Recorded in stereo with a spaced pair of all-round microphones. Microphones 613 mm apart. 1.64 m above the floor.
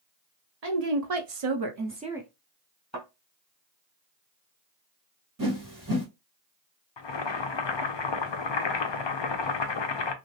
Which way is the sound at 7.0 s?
50° left (ahead or behind).